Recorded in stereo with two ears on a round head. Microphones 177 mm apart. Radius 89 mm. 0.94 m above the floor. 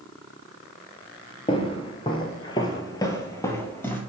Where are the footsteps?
25° left (ahead or behind), 1.1 m; by 4.0 s 10° left (ahead or behind), 1.2 m.